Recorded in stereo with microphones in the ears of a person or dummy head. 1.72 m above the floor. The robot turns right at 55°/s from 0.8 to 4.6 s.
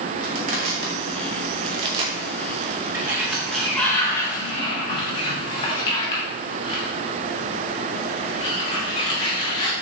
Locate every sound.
0.2 s crushing: 40° right (ahead or behind), 0.7 m; by 2.1 s 25° right (ahead or behind), 0.7 m
2.9 s a sliding door: 15° right (ahead or behind), 1.0 m; by 9.7 s 30° left (ahead or behind), 1.0 m